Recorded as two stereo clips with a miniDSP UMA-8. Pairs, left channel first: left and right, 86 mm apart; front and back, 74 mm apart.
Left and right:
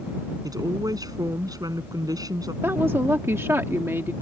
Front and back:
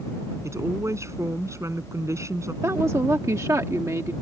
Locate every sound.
0.4 s a woman speaking: 130° right
2.6 s a woman speaking: 145° right